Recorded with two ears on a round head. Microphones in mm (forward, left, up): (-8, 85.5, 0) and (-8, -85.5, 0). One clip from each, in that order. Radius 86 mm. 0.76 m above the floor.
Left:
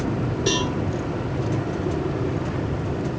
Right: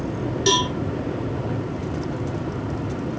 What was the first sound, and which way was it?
A cowbell, 60° right (ahead or behind).